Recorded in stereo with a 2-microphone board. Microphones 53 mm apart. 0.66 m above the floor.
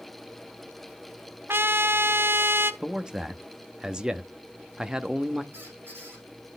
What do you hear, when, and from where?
1.5 s a trumpet: 45° right (ahead or behind), 0.6 m
2.8 s a man speaking: 15° right (ahead or behind), 0.6 m
5.5 s a squeak: 45° right (ahead or behind), 4.5 m